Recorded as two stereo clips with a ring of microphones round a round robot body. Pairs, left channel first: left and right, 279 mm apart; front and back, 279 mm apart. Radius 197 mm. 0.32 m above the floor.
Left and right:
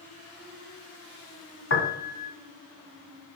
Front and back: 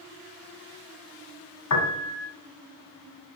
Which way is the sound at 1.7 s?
35° left.